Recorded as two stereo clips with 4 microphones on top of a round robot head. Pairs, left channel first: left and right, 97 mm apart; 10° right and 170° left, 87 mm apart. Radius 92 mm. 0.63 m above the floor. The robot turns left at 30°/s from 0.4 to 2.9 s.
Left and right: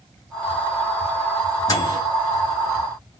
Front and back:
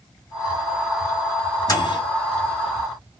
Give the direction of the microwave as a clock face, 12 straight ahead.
11 o'clock.